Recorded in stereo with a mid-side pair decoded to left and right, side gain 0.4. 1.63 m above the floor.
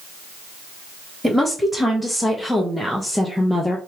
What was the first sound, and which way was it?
A woman speaking, straight ahead.